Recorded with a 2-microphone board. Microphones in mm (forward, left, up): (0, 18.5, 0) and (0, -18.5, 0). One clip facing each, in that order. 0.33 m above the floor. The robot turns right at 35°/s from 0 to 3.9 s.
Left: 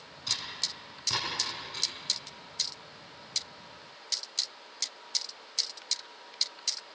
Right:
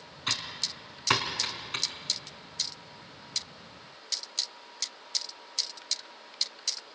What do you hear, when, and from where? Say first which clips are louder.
0.3 s typing on a keyboard: right 2 dB; 45° right (ahead or behind), 3.5 m; by 1.9 s 65° right (ahead or behind), 3.5 m